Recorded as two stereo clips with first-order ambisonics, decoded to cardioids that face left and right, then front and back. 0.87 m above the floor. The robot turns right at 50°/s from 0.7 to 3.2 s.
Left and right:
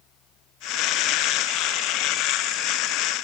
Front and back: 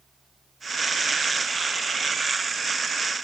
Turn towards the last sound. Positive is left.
No sound to turn to.